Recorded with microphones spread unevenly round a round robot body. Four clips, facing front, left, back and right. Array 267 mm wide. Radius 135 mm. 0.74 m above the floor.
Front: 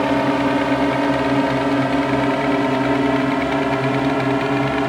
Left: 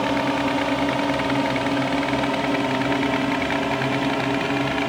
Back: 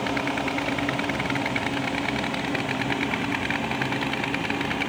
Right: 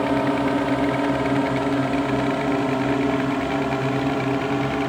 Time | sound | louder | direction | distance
0.0 | a drone | right 1 dB, front 10 dB | 5° right | ?